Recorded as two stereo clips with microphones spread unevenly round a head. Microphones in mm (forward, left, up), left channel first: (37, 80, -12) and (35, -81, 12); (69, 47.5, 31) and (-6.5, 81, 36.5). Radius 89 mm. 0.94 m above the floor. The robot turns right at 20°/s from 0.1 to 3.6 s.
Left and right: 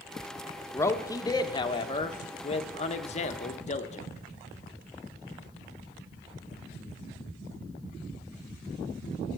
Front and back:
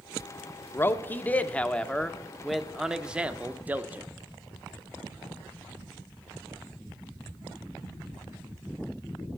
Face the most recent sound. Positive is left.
turn(degrees=85)